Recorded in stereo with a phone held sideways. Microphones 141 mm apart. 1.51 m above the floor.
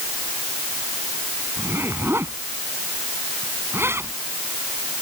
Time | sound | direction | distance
1.6 | a zipper | 15° right (ahead or behind) | ?